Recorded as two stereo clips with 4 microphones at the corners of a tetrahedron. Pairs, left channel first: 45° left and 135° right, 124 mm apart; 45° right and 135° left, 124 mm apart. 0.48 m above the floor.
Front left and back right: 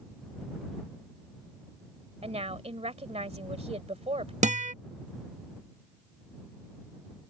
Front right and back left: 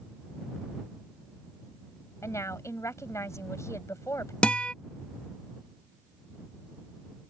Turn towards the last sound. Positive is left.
turn(degrees=-125)